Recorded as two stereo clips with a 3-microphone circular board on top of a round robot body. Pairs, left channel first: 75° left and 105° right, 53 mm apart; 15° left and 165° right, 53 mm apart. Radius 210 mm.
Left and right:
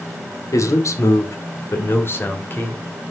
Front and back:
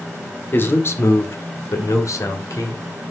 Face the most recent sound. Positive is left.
turn(degrees=20)